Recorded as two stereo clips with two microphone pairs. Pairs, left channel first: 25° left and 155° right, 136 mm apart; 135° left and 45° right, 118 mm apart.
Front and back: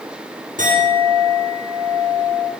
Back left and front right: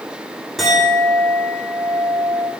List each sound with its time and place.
0.6 s a clink: 135° right, 8.5 m